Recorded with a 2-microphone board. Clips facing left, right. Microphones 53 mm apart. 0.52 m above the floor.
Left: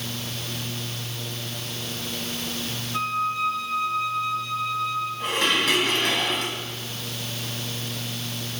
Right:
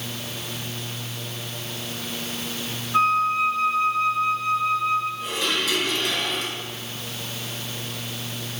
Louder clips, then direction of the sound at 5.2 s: Left 3 dB; 50° left (ahead or behind).